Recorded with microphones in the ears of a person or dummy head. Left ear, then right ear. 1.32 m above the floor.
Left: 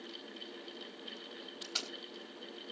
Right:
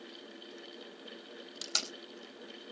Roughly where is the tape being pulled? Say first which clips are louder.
Right 5 dB; right.